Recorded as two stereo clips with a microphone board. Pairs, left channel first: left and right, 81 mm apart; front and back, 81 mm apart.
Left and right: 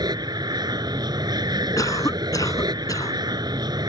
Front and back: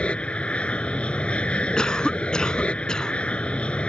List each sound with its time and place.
0.0 s an aircraft: 75° right
1.8 s a cough: 80° left